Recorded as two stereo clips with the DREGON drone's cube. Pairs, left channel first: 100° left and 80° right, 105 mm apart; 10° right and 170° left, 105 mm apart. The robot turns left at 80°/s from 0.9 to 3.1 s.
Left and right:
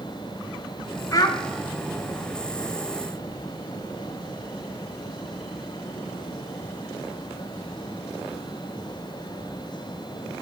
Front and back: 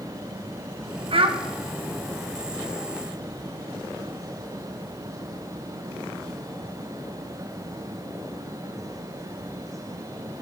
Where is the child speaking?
155° left, 0.7 m; by 1.4 s 135° left, 0.7 m.